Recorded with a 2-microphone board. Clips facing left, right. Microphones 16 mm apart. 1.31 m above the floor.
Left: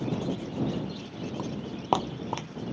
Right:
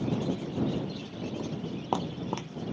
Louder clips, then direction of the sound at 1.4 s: Even; 45° left (ahead or behind).